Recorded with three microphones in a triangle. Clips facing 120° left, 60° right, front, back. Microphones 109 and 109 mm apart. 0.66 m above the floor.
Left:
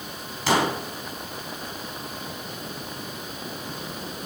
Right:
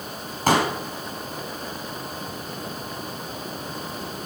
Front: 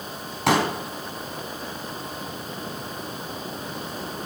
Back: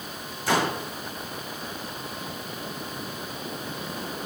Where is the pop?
15° right, 4 m.